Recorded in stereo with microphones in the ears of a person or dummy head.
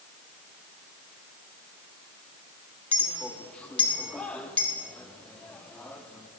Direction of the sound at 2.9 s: 10° left (ahead or behind).